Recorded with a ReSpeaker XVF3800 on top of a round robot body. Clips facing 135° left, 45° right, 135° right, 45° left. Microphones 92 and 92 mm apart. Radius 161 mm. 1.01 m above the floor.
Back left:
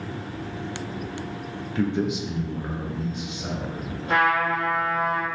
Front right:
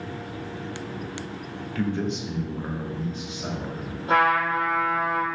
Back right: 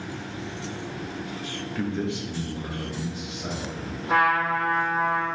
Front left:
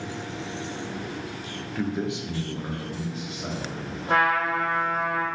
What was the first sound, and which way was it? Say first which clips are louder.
A man speaking: back left 3 dB, front left 1 dB; 135° left.